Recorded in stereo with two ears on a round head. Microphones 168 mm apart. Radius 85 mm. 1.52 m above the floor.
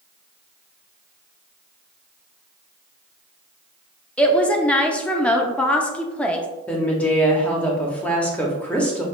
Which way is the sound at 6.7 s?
5° left (ahead or behind).